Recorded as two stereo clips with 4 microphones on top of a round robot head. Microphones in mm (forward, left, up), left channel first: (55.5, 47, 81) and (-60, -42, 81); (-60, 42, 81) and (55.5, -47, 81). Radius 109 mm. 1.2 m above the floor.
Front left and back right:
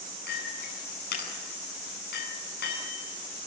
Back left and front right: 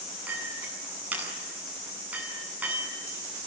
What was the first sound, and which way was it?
A clink, 45° left.